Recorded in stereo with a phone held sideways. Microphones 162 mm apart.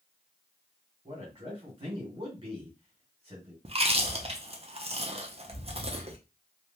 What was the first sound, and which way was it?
A man speaking, 35° right (ahead or behind).